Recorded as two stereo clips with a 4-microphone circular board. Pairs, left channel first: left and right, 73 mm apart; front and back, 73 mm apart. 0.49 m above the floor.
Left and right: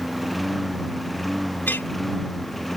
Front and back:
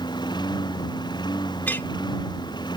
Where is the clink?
45° left.